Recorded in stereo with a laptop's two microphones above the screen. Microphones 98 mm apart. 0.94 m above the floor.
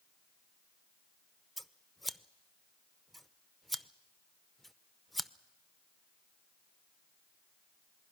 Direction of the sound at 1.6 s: Centre (ahead or behind).